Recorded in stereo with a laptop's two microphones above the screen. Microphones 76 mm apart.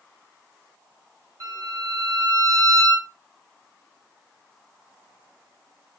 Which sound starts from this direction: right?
A violin, at 1.4 s.